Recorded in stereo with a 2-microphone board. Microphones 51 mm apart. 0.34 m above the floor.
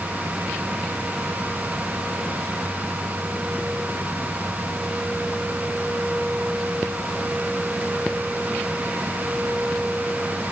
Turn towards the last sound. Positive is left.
No sound to turn to.